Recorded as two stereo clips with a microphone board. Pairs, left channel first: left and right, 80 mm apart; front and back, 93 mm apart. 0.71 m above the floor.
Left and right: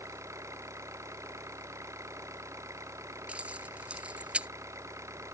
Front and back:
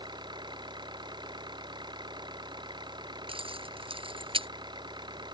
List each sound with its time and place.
0.0 s an engine running: 145° right
3.3 s keys jangling: 165° right